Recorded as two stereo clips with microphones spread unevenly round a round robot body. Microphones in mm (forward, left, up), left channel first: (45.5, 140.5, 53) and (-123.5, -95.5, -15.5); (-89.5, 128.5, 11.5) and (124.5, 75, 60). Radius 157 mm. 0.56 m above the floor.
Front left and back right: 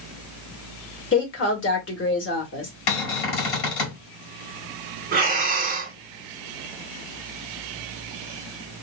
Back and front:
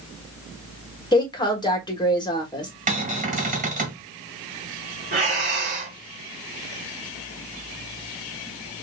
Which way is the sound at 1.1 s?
105° left.